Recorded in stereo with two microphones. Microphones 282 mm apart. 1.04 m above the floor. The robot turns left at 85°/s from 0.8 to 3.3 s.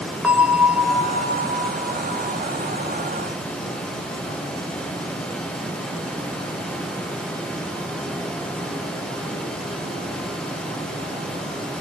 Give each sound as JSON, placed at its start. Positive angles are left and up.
{"t": 0.2, "sound": "a bell", "azimuth_deg": -175, "distance_m": 0.6}